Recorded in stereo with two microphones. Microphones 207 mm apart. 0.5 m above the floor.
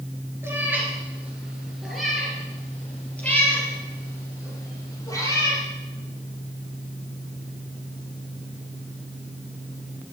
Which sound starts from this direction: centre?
A cat meowing, at 0.4 s.